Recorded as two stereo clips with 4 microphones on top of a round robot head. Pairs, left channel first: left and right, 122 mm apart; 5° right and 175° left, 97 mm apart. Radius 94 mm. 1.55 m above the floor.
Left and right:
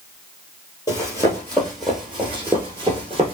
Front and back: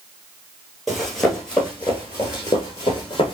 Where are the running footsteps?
85° left, 1.6 m; by 3.3 s 50° right, 1.9 m.